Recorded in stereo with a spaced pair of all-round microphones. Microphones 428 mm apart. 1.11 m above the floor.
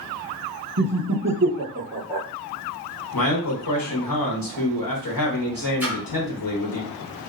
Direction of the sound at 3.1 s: 55° left (ahead or behind).